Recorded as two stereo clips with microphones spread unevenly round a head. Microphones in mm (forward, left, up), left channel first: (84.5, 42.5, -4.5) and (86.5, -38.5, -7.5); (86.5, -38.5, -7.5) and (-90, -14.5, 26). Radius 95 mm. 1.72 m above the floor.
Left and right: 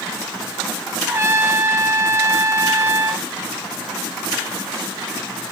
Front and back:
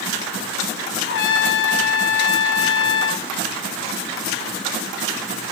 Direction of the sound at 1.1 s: 30° right.